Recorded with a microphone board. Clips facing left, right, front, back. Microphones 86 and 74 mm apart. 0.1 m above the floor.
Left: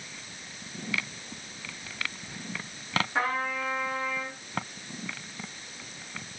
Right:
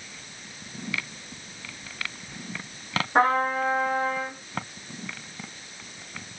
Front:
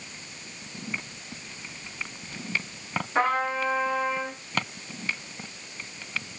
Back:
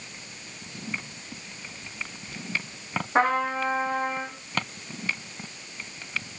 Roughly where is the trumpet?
Behind right.